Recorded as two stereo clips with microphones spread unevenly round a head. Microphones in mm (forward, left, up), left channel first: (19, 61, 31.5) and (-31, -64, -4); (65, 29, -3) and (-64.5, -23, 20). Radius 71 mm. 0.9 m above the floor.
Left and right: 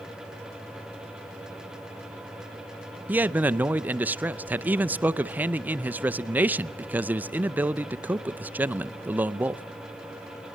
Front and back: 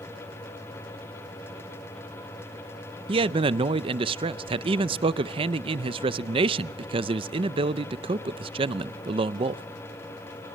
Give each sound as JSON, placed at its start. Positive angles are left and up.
{"t": 3.1, "sound": "a man speaking", "azimuth_deg": -130, "distance_m": 0.6}